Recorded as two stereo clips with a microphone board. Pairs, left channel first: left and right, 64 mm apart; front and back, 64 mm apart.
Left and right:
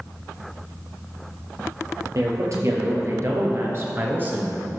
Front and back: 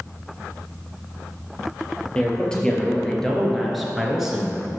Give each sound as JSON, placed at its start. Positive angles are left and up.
{"t": 2.1, "sound": "a man speaking", "azimuth_deg": -75, "distance_m": 2.5}